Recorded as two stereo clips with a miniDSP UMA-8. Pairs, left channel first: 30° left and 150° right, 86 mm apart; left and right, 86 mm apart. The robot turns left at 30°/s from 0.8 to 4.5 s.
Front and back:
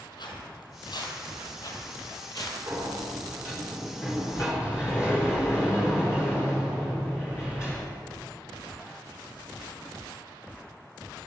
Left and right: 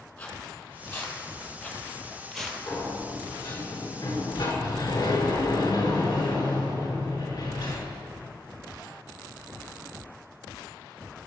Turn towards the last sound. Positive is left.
turn(degrees=80)